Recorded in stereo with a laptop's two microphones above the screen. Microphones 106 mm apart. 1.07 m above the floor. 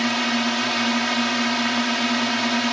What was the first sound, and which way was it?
A drone, centre (ahead or behind).